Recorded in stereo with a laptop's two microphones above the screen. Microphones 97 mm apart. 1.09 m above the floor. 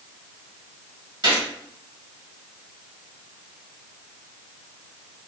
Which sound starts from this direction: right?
A gunshot, at 1.2 s.